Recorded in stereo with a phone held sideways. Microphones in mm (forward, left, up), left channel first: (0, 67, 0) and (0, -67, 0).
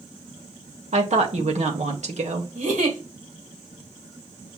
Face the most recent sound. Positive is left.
turn(degrees=-80)